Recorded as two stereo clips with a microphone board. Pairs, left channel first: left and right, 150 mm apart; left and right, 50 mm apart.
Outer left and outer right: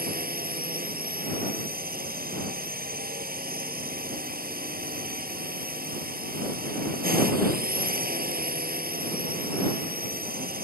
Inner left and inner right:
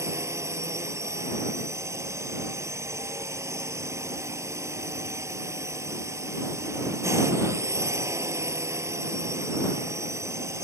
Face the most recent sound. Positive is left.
turn(degrees=-80)